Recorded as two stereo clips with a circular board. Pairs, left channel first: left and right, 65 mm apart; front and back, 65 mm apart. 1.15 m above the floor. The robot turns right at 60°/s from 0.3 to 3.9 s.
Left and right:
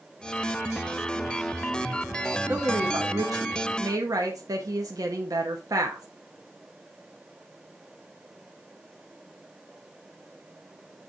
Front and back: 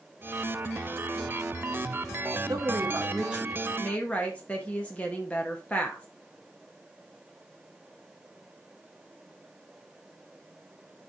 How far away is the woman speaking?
About 1.2 m.